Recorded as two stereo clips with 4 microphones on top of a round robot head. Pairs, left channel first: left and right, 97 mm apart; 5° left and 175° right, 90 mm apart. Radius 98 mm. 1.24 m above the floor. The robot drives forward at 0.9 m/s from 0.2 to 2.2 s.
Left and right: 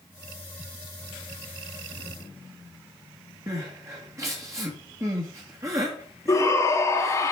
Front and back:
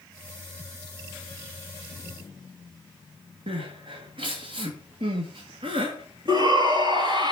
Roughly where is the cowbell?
I don't hear a cowbell.